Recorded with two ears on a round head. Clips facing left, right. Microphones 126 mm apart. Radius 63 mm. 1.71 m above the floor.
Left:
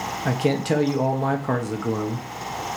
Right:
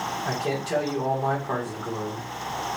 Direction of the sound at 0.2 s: 90° left.